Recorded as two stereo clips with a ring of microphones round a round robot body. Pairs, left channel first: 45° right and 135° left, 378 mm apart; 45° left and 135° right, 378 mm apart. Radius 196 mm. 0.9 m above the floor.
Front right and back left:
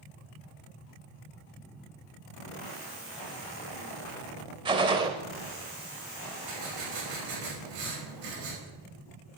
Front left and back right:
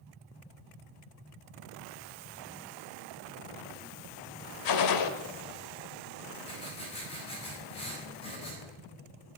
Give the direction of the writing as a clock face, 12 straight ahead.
8 o'clock.